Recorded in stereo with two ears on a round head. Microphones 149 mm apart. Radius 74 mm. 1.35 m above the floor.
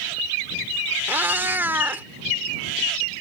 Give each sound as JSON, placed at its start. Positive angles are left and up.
{"t": 1.1, "sound": "a cat meowing", "side_deg": -10}